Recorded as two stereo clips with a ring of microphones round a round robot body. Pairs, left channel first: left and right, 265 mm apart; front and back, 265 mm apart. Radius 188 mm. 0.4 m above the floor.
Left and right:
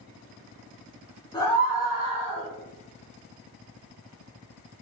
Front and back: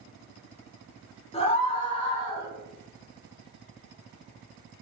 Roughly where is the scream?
Ahead left.